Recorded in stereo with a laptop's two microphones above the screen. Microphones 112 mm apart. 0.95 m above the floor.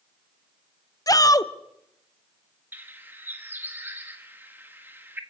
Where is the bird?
20° right (ahead or behind), 1.6 m.